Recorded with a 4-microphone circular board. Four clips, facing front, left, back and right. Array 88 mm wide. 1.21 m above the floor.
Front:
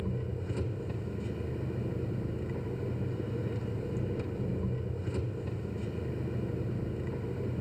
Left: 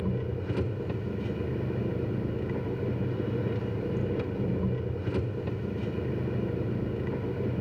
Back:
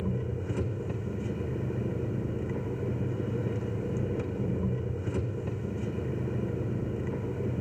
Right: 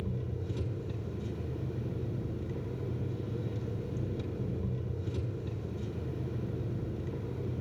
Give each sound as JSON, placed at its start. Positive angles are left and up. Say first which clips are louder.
{"t": 0.0, "sound": "an engine running", "louder": "left 6 dB, back 3 dB", "azimuth_deg": 115, "distance_m": 1.3}